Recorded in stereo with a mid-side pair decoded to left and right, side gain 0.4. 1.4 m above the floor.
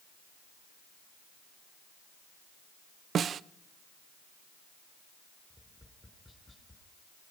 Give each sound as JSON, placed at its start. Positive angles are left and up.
{"t": 3.1, "sound": "a snare drum", "azimuth_deg": -60, "distance_m": 0.6}
{"t": 5.5, "sound": "tapping", "azimuth_deg": 20, "distance_m": 4.5}